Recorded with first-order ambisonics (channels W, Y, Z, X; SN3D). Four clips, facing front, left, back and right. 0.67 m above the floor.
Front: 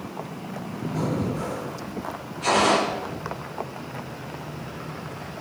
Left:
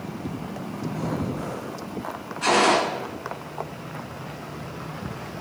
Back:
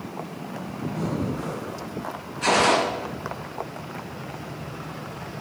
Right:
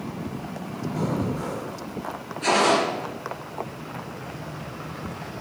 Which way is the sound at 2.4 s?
125° left.